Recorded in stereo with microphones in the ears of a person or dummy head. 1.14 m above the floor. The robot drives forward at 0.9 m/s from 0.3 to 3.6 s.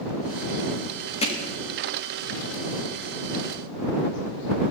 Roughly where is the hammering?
Left.